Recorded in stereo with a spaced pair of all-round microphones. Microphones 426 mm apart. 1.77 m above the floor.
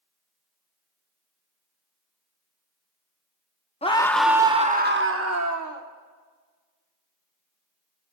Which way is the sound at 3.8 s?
15° left (ahead or behind).